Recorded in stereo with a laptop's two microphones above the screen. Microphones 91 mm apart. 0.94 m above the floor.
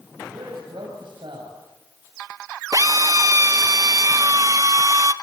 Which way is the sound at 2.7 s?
40° right (ahead or behind).